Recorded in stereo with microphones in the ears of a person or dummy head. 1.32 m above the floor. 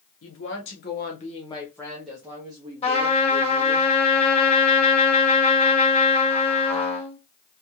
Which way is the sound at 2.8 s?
35° left (ahead or behind).